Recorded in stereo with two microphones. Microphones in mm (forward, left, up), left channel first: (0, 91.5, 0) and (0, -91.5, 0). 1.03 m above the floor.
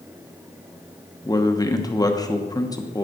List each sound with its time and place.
1.2 s a man speaking: 20° left (ahead or behind), 1.1 m